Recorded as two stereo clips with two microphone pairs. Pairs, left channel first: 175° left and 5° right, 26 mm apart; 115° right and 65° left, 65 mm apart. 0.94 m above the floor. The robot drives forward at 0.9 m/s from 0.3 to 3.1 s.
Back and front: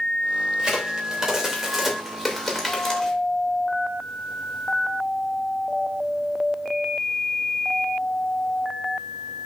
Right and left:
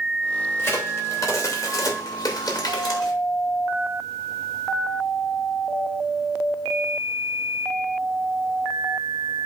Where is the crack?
60° right, 2.5 m; by 3.1 s 110° right, 2.5 m.